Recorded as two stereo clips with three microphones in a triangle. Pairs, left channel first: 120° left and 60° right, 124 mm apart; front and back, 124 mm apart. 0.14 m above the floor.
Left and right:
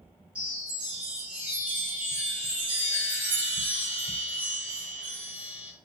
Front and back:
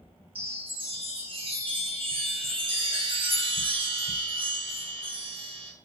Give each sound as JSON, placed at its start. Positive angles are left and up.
{"t": 0.3, "sound": "a chime", "azimuth_deg": -140, "distance_m": 1.1}